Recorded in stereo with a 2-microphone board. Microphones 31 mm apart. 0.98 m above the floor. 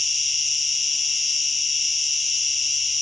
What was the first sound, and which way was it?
An insect, 15° right (ahead or behind).